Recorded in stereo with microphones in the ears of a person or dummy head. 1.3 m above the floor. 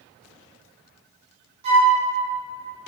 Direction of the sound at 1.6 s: 35° right (ahead or behind).